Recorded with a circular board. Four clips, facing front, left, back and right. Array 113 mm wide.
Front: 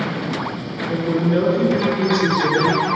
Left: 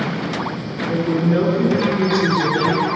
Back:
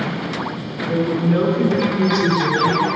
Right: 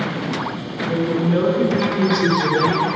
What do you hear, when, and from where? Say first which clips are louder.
0.9 s a woman speaking: left 1 dB, back 1 dB; 150° left, 1.4 m; by 2.9 s 50° right, 1.2 m